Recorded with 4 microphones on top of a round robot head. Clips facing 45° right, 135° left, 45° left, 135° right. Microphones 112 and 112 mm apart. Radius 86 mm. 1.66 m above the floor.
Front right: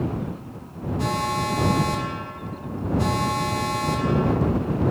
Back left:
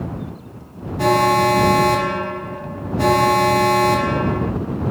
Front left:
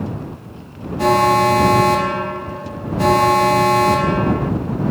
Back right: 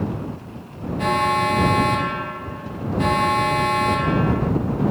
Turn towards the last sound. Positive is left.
turn(degrees=100)